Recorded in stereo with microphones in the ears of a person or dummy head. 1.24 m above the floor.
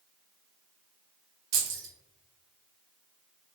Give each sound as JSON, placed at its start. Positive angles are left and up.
{"t": 1.5, "sound": "keys jangling", "side_deg": -70, "distance_m": 1.1}